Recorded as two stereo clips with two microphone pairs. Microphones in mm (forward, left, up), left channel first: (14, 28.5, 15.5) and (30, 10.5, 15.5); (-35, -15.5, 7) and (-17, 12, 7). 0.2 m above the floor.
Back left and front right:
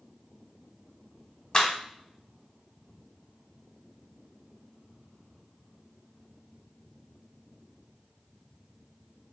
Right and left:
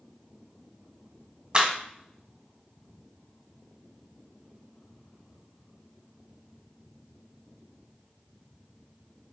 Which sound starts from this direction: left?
A clap, at 1.5 s.